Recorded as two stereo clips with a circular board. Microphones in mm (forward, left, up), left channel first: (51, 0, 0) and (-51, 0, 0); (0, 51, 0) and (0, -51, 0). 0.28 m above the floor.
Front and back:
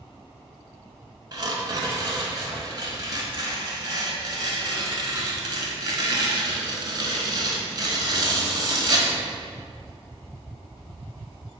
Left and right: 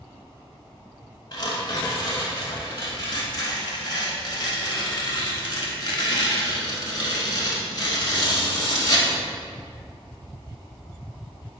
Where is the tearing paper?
135° left, 0.7 m.